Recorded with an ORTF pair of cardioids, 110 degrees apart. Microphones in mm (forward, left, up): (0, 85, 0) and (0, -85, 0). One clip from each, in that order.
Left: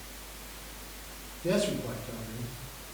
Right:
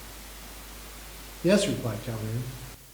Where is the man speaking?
50° right, 1.3 m.